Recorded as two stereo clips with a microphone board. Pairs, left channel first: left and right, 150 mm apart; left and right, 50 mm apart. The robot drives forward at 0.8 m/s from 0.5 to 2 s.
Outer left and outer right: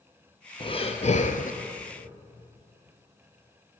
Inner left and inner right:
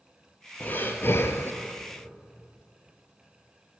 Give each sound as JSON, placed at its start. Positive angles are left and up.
{"t": 0.6, "sound": "breathing", "side_deg": 35, "distance_m": 1.0}